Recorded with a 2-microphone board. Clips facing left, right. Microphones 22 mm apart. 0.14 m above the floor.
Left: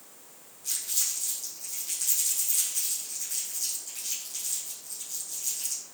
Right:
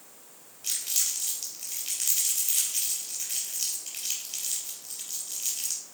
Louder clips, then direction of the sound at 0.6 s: Right 2 dB; 65° right (ahead or behind).